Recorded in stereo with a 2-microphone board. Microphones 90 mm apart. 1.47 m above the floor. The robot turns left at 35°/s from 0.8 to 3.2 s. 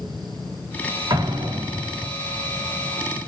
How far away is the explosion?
About 3.5 m.